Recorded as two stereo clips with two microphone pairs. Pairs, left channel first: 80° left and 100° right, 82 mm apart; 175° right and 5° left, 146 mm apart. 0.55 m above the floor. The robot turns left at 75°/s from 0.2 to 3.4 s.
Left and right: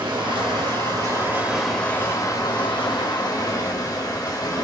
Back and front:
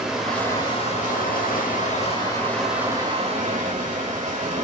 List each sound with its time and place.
0.0 s running water: 80° right, 1.1 m; by 4.6 s 40° left, 1.1 m